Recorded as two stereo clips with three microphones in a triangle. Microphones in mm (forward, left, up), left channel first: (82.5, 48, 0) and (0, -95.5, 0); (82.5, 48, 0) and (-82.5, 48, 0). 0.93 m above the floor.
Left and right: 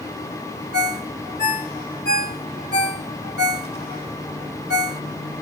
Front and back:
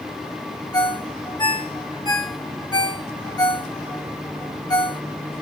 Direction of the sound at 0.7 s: 65° left.